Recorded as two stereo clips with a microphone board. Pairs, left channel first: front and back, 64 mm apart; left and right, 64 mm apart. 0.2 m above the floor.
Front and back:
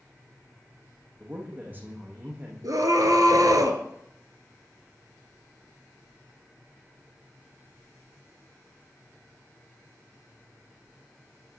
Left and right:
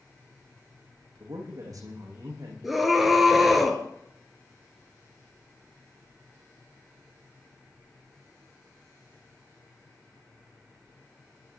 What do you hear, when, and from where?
1.2 s a man speaking: 120° right, 8.5 m
2.6 s a scream: 175° right, 4 m